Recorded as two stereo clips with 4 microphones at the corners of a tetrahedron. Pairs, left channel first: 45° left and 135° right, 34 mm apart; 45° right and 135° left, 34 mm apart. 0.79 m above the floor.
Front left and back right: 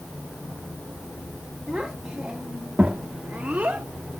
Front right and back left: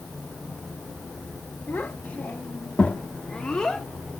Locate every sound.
1.7 s a child speaking: 55° right, 1.5 m; by 3.9 s 115° right, 1.1 m